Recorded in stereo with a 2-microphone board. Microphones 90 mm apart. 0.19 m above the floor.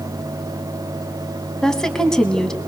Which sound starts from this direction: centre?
A woman speaking, at 1.6 s.